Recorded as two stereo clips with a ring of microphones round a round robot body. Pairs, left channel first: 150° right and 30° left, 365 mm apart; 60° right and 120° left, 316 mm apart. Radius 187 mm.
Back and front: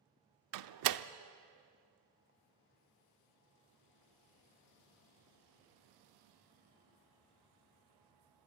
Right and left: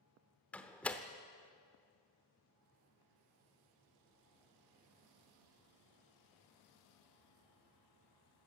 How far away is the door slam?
About 0.8 m.